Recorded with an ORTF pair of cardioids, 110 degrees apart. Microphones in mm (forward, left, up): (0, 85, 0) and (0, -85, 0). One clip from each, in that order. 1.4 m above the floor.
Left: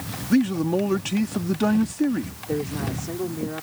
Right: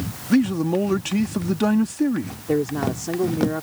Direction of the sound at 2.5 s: 35° right.